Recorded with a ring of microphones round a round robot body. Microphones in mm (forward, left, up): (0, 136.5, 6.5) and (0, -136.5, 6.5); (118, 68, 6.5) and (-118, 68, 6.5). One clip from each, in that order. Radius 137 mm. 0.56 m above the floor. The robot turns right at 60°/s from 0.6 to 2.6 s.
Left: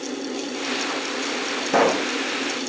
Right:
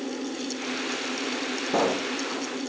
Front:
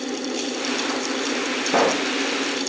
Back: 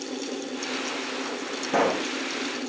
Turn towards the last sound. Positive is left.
turn(degrees=120)